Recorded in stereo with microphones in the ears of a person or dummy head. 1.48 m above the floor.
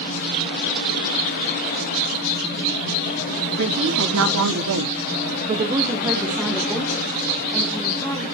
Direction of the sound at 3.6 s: 60° right (ahead or behind).